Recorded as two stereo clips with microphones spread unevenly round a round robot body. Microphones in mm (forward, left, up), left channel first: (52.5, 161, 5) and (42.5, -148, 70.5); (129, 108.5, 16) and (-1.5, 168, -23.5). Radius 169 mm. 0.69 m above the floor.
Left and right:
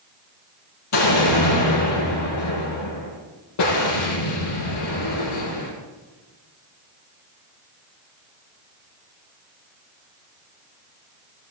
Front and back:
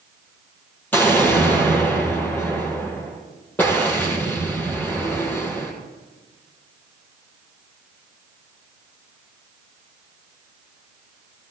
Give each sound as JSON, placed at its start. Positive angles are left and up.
{"t": 0.9, "sound": "an explosion", "azimuth_deg": 50, "distance_m": 6.5}